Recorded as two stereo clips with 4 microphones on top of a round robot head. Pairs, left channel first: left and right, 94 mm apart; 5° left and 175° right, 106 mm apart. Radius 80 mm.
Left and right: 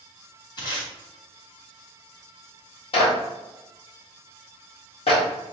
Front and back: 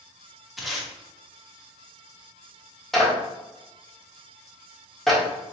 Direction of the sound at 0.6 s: 95° left.